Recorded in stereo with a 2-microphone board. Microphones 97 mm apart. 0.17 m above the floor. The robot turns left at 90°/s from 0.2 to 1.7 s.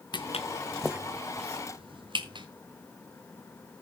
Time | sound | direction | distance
0.1 | footsteps | 50° left (ahead or behind) | 0.9 m